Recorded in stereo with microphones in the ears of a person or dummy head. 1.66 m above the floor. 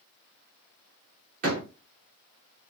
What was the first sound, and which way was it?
A door slam, 40° right (ahead or behind).